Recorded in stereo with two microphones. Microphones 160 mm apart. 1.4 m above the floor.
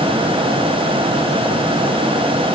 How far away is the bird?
No bird in this recording.